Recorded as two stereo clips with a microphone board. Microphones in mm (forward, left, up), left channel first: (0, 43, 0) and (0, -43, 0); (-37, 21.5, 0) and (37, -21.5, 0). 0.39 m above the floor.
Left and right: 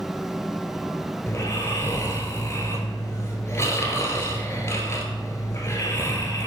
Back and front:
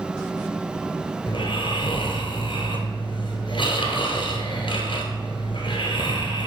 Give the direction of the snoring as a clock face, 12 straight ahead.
7 o'clock.